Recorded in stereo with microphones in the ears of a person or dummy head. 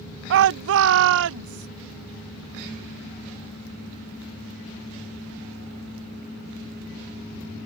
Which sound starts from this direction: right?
A shout, at 0.3 s.